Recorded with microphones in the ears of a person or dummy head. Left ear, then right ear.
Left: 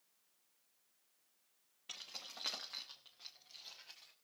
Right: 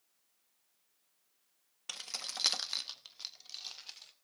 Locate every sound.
1.9 s keys jangling: 40° right (ahead or behind), 1.1 m; by 4.1 s 55° right (ahead or behind), 2.5 m